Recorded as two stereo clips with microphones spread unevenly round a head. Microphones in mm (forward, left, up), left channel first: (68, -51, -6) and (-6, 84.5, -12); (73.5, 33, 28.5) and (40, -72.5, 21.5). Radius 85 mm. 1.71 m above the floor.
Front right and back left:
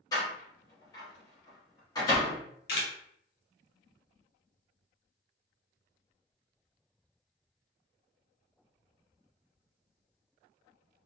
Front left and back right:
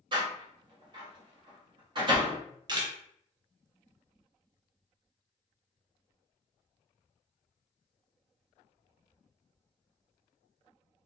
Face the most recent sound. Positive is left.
turn(degrees=-55)